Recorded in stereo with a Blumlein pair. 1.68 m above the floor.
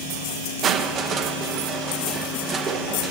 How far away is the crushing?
About 1.2 m.